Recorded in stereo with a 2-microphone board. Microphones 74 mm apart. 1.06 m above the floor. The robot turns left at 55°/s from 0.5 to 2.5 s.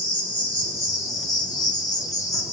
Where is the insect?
150° left, 0.9 m; by 2.5 s 40° left, 0.9 m.